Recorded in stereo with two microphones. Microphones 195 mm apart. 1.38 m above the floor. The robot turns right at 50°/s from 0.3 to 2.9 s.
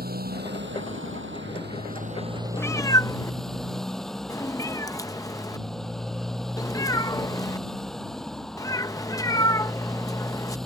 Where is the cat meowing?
15° left (ahead or behind).